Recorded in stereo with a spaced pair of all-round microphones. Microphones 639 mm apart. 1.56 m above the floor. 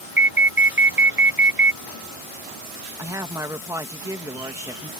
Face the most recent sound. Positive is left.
turn(degrees=-5)  # may be behind; listen again after turning